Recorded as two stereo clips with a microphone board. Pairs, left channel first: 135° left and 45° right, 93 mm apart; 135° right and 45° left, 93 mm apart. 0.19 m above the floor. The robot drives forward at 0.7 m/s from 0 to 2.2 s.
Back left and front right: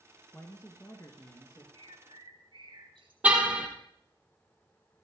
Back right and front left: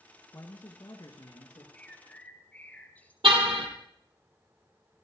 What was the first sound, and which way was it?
A man speaking, 170° right.